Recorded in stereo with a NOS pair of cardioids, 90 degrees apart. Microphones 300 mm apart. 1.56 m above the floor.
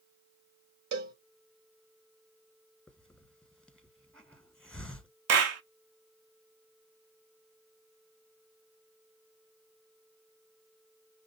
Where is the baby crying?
I don't hear a baby crying.